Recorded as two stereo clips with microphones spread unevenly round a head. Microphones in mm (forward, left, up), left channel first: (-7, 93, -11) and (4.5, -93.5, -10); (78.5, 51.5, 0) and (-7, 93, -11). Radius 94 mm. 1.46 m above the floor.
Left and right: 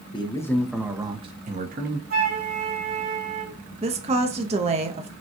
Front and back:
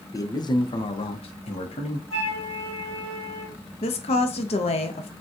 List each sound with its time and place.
0.1 s a man speaking: 30° left, 0.9 m; by 2.0 s 45° right, 1.1 m
2.1 s a flute: 90° right, 2.5 m
3.8 s a woman speaking: 30° right, 0.7 m